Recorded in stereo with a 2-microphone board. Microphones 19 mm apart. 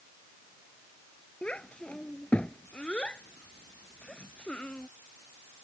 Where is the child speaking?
85° left; by 4.9 s 75° left (ahead or behind).